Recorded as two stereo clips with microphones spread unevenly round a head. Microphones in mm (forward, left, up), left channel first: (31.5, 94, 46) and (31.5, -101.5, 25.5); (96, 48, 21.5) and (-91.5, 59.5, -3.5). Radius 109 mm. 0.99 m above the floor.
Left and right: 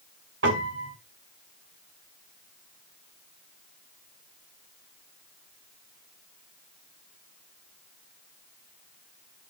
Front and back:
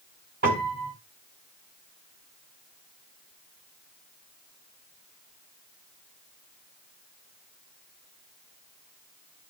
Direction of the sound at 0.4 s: 130° right.